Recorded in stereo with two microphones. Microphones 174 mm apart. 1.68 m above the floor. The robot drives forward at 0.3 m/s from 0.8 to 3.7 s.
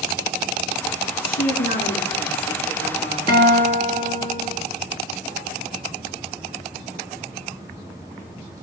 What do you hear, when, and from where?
1.2 s a woman speaking: 80° left, 4 m; by 3.2 s 75° left (ahead or behind), 4 m
3.3 s a guitar: 25° left (ahead or behind), 5 m